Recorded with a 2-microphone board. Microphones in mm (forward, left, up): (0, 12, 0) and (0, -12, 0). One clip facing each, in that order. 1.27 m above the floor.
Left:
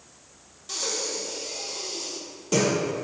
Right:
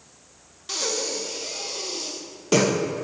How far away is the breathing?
About 0.7 m.